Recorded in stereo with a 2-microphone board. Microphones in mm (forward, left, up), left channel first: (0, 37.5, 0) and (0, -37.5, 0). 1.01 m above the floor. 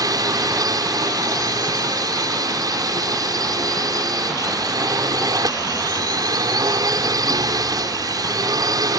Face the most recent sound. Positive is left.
turn(degrees=-60)  # may be behind; listen again after turning